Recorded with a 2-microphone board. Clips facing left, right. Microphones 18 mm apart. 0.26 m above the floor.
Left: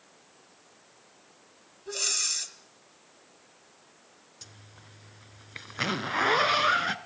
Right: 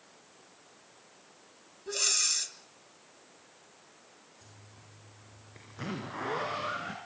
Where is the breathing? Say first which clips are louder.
Even; centre (ahead or behind), 1.3 m.